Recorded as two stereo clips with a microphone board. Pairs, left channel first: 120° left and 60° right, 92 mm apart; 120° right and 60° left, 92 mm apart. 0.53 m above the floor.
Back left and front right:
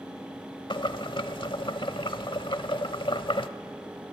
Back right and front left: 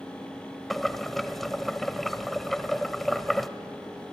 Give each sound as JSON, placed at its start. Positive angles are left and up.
{"t": 0.7, "sound": "boiling", "azimuth_deg": 150, "distance_m": 0.8}